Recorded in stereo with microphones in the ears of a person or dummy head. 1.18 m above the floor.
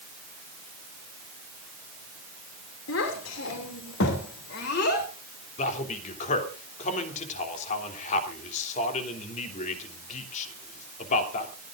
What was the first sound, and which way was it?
A child speaking, 80° left.